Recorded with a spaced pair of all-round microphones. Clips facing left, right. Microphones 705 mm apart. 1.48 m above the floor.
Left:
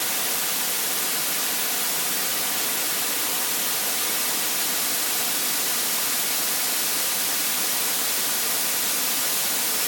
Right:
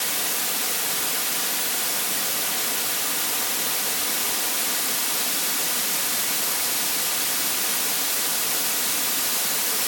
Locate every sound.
Only background noise.